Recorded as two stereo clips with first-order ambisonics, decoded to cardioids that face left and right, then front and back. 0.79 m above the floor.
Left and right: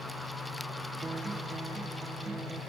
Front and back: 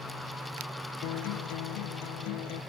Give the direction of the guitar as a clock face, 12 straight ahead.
12 o'clock.